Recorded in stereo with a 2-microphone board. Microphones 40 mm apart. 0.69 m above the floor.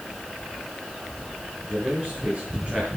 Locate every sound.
1.7 s a man speaking: 30° right (ahead or behind), 7 m